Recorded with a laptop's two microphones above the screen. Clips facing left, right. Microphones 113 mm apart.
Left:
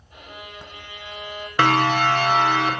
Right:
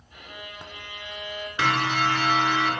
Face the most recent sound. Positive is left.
turn(degrees=70)  # may be behind; listen again after turning